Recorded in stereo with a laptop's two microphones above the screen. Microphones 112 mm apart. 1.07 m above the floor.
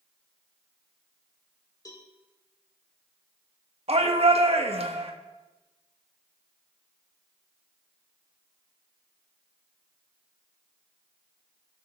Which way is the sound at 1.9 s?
30° left (ahead or behind).